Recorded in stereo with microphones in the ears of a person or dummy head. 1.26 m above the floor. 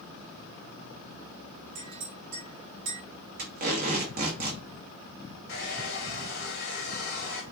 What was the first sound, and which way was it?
A clink, 50° right (ahead or behind).